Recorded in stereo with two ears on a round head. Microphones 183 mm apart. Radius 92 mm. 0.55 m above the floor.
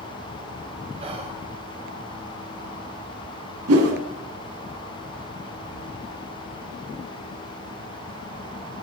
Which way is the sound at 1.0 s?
30° right (ahead or behind).